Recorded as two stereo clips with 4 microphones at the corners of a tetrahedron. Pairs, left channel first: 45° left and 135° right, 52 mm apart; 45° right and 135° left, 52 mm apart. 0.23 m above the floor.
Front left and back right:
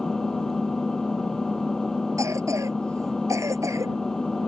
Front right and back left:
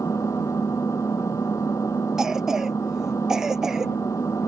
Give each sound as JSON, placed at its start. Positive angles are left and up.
{"t": 0.0, "sound": "an engine running", "azimuth_deg": -35}
{"t": 2.2, "sound": "a cough", "azimuth_deg": -145}